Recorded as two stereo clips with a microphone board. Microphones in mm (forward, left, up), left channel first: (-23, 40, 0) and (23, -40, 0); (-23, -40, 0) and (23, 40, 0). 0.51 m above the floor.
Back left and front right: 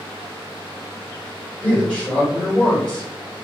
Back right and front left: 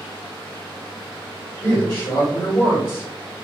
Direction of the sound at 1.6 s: 170° right.